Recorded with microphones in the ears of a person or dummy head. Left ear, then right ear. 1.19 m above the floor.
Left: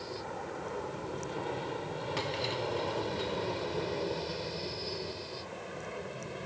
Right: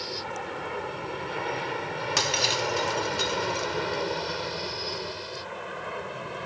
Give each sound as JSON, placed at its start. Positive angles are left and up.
{"t": 0.0, "sound": "an aircraft", "side_deg": -65}
{"t": 2.2, "sound": "breaking glass", "side_deg": -65}